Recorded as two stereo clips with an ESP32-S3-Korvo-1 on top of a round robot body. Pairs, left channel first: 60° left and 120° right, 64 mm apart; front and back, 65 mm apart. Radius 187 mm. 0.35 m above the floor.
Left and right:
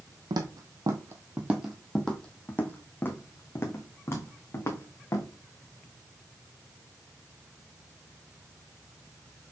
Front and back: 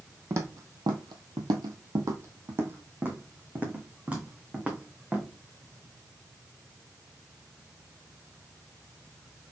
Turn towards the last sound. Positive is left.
turn(degrees=105)